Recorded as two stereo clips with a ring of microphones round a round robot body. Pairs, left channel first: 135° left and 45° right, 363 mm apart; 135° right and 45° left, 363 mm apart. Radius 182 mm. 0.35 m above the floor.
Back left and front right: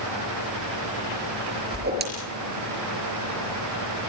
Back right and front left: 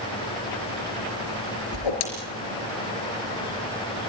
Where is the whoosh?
110° right, 5 m.